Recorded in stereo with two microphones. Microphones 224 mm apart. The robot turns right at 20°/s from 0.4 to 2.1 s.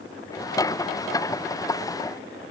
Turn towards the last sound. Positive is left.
No sound to turn to.